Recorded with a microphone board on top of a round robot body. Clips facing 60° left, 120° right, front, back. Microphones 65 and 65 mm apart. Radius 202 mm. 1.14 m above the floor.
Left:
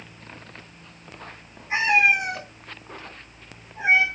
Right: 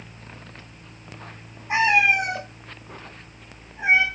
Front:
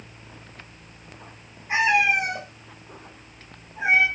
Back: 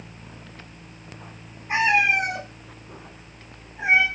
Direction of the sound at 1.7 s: 100° right.